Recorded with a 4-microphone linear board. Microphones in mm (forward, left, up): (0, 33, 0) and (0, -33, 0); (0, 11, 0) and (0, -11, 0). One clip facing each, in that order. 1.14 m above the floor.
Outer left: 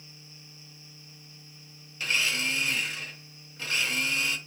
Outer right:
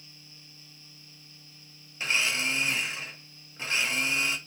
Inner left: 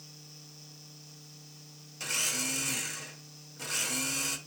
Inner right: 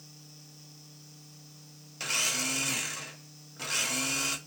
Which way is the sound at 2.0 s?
20° right (ahead or behind).